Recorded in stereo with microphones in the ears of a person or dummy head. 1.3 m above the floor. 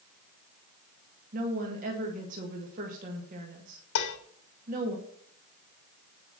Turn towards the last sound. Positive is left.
turn(degrees=65)  # may be behind; listen again after turning